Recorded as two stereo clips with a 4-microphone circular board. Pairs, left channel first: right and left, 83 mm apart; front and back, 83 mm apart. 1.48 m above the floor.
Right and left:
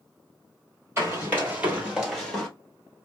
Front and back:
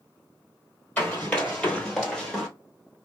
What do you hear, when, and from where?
1.0 s running footsteps: 55° left, 1.8 m; by 2.5 s 80° right, 1.4 m